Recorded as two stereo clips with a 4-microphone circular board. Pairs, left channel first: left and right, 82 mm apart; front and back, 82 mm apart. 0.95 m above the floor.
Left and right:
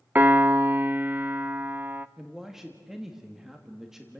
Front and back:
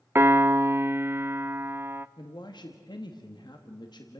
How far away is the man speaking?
About 1.6 m.